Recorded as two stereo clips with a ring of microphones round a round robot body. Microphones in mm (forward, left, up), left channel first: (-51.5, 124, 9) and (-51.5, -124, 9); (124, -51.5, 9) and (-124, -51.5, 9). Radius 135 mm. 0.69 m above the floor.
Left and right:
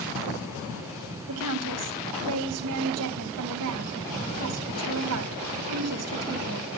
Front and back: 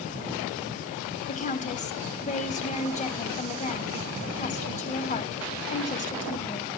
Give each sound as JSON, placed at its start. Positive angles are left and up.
{"t": 1.3, "sound": "a woman speaking", "azimuth_deg": -60, "distance_m": 3.5}